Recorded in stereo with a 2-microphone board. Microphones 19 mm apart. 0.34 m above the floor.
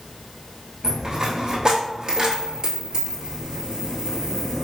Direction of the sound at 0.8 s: 45° right (ahead or behind).